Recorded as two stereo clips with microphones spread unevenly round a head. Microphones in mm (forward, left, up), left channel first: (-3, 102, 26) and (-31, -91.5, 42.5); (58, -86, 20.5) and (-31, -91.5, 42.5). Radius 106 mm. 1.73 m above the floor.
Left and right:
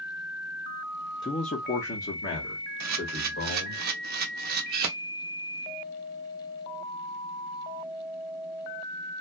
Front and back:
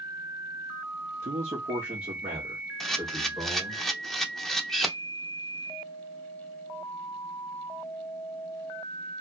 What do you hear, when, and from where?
1.2 s a man speaking: 155° left, 0.5 m; by 3.8 s 105° left, 2 m
2.8 s a camera shutter: 95° right, 0.6 m